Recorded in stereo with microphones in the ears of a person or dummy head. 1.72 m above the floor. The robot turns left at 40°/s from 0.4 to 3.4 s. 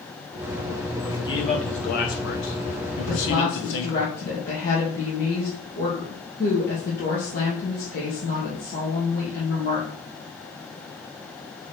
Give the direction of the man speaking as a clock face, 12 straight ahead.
6 o'clock.